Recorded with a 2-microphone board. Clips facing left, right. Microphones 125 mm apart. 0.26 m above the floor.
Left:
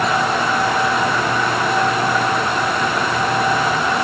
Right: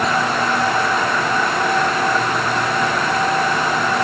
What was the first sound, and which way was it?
Only background noise.